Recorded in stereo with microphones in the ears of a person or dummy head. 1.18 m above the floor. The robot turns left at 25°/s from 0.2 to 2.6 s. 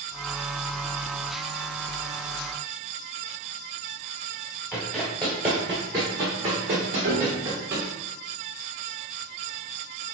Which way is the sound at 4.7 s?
5° left (ahead or behind).